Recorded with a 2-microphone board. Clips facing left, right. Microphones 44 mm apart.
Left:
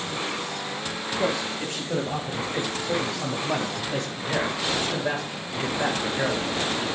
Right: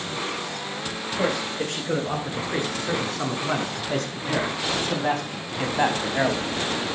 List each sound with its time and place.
1.2 s a man speaking: 85° right, 8.5 m; by 6.5 s 50° right (ahead or behind), 3.5 m